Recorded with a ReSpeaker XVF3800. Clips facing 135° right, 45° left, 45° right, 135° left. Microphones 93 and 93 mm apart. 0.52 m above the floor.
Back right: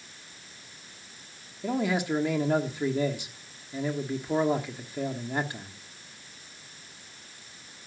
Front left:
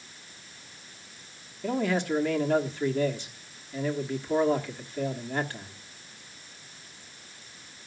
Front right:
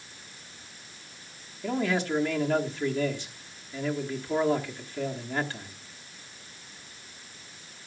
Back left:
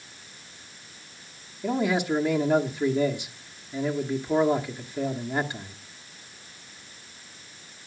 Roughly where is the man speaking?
Behind.